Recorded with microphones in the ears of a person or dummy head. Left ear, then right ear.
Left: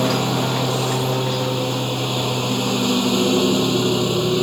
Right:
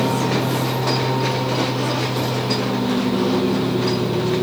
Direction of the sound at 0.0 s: 85° left.